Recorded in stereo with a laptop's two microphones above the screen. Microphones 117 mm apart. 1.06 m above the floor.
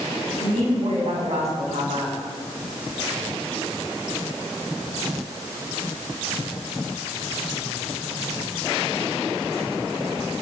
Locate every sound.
0.4 s a woman speaking: 70° right (ahead or behind), 7.5 m